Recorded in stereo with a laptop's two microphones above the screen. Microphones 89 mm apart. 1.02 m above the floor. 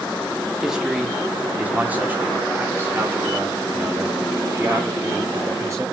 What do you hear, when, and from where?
0.6 s a man speaking: 5° right (ahead or behind), 1.8 m; by 5.8 s 35° right (ahead or behind), 4.5 m